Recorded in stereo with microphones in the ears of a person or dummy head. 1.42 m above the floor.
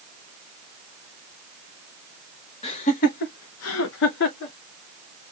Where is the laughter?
35° left (ahead or behind), 1.0 m; by 4.5 s 55° left (ahead or behind), 1.1 m.